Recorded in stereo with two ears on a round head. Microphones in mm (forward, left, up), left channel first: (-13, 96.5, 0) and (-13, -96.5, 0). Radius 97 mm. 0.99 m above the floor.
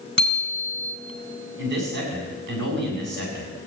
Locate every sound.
0.2 s a bicycle bell: 30° right (ahead or behind), 4 m
1.6 s a man speaking: 55° right (ahead or behind), 6.5 m